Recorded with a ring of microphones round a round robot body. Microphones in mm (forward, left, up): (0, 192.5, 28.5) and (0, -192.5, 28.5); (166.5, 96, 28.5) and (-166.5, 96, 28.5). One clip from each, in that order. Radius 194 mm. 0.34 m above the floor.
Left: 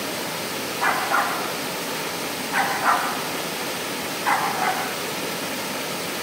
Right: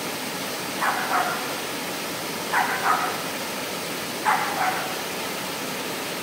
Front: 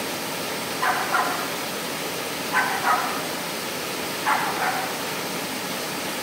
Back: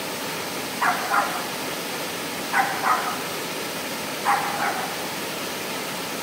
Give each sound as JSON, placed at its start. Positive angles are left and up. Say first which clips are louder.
{"t": 0.8, "sound": "a dog barking", "louder": "left 2 dB, back 1 dB", "azimuth_deg": -150, "distance_m": 5.5}